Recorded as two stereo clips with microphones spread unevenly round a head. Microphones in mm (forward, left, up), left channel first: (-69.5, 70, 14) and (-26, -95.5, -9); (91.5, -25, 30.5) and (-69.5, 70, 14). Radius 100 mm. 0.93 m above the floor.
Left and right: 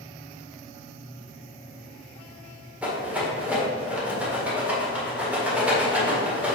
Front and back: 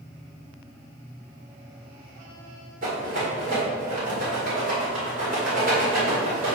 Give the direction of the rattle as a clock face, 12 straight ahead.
5 o'clock.